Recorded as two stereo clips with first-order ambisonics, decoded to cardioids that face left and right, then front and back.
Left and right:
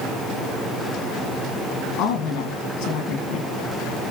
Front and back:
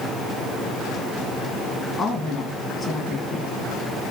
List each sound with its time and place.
2.0 s a woman speaking: 65° left, 1.2 m